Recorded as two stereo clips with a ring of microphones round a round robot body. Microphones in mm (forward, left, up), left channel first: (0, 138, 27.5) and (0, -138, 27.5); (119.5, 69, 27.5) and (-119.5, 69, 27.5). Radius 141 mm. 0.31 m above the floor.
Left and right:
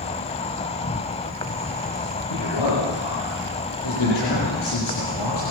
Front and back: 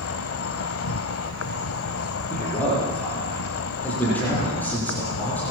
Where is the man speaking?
85° left, 9.5 m.